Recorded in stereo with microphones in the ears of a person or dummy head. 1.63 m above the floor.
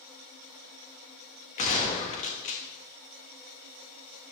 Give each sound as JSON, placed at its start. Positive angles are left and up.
{"t": 1.6, "sound": "a gunshot", "side_deg": 35, "distance_m": 1.7}